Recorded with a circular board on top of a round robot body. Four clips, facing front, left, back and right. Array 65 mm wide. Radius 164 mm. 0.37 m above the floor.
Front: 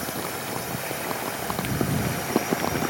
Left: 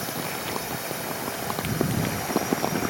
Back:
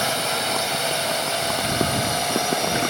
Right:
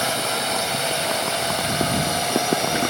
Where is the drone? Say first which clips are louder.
Right 7 dB, back 7 dB; 135° right; by 2.9 s 130° right.